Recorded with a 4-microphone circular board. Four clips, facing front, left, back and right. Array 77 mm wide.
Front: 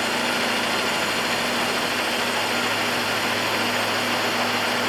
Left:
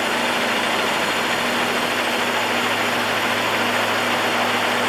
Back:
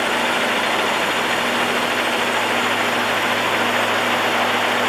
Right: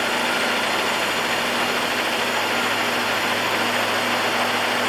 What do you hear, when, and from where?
Only background noise.